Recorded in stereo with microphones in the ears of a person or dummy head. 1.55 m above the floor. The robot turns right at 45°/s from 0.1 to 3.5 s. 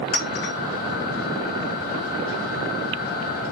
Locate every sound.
0.1 s a clink: 35° left (ahead or behind), 0.7 m; by 0.5 s 50° left (ahead or behind), 0.7 m